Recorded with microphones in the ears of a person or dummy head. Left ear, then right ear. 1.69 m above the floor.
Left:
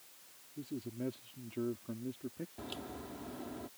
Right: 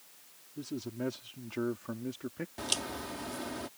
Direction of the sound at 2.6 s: 75° right (ahead or behind).